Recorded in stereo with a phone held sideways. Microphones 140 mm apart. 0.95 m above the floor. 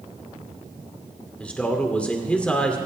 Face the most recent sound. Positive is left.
turn(degrees=10)  # may be behind; listen again after turning